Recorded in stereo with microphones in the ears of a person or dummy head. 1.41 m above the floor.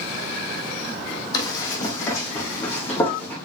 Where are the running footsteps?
25° left (ahead or behind), 4 m; by 3.4 s 10° left (ahead or behind), 5 m.